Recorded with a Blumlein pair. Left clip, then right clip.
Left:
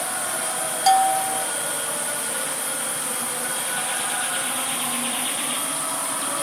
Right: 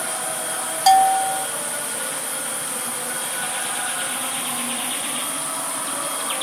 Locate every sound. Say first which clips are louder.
0.9 s a bell: right 3 dB; 10° right